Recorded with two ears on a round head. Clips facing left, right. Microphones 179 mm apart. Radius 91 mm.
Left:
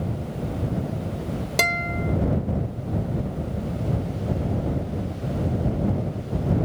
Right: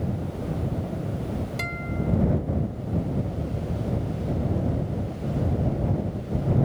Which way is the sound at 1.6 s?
80° left.